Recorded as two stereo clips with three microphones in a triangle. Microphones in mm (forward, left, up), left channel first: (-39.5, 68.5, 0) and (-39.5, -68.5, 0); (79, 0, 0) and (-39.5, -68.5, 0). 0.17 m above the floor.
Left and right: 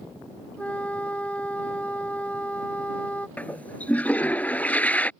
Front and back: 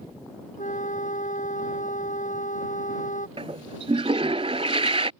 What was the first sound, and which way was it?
A flute, 10° left.